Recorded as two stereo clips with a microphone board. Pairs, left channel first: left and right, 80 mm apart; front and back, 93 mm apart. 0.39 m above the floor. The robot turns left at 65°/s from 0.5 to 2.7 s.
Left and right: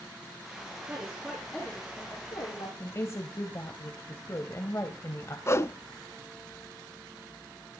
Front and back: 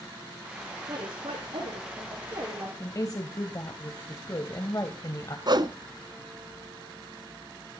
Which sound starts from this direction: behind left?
A whoosh, at 5.5 s.